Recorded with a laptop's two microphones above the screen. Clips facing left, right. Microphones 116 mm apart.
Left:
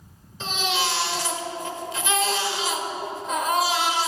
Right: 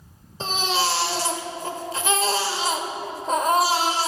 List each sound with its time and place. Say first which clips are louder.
0.4 s a baby crying: right 2 dB; 35° right (ahead or behind), 1.4 m